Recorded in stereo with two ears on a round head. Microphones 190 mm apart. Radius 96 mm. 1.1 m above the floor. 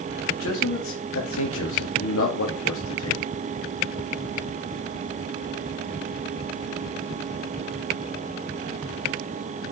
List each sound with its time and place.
0.3 s a man speaking: 65° left (ahead or behind), 2.5 m